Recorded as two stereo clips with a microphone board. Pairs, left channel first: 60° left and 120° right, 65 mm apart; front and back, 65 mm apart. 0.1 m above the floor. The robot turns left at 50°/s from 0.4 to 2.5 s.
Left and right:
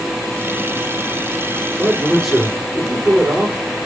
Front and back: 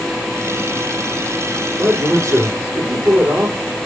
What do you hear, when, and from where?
1.8 s a man speaking: straight behind, 4 m; by 3.5 s 145° left, 4 m